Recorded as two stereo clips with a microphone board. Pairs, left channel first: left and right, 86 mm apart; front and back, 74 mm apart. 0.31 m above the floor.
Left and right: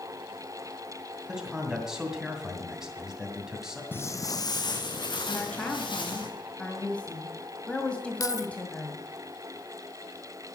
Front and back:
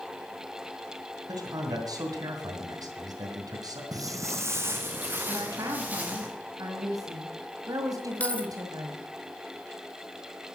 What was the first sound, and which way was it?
A man speaking, 175° right.